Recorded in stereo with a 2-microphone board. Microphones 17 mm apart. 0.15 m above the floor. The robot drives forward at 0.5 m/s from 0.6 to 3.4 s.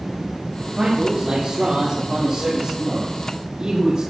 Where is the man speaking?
30° right (ahead or behind), 5.5 m; by 4.0 s 25° right (ahead or behind), 7 m.